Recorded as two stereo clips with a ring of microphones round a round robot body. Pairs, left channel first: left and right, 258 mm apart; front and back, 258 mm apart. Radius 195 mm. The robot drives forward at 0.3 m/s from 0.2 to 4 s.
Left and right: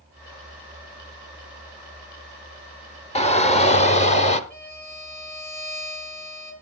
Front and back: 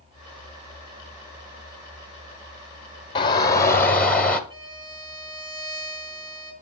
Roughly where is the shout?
Ahead left.